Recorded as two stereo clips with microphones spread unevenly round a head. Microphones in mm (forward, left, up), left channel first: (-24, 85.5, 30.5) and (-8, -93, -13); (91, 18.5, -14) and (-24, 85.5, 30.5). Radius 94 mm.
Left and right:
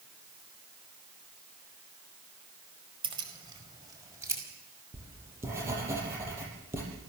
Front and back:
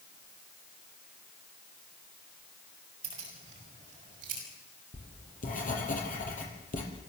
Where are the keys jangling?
150° right, 4.5 m; by 4.4 s 160° right, 6 m.